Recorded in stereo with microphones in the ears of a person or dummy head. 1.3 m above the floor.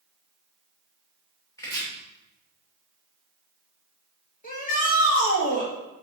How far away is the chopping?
About 3 m.